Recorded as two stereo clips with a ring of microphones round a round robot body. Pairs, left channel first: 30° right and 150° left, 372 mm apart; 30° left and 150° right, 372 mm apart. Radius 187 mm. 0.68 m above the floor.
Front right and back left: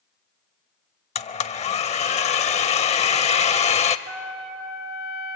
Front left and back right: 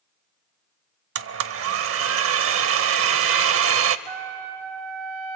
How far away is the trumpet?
About 3.5 m.